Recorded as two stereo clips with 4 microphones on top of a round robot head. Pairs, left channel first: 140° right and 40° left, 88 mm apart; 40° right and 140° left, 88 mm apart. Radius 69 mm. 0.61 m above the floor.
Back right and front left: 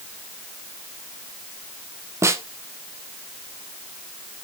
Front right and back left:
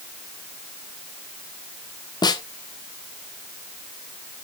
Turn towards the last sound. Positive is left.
turn(degrees=-10)